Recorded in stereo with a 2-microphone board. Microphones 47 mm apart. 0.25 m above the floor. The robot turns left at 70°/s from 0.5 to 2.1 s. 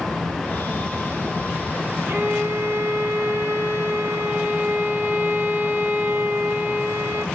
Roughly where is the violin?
Right.